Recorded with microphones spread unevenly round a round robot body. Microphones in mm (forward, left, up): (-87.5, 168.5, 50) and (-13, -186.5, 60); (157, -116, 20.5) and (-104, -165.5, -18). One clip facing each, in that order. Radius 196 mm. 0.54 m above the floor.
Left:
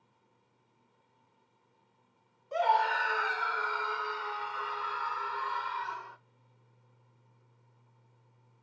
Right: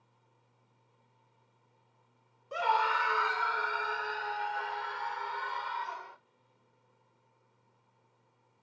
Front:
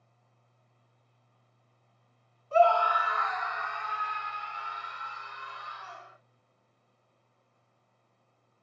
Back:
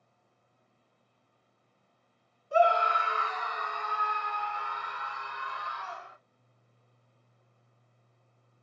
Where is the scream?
130° right, 1.0 m; by 6.2 s 170° left, 2.5 m.